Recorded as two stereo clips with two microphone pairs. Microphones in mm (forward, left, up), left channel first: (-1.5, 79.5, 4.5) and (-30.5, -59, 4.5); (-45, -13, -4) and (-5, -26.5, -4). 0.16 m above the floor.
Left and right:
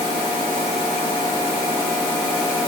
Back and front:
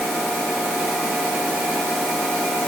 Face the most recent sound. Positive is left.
No sound to turn to.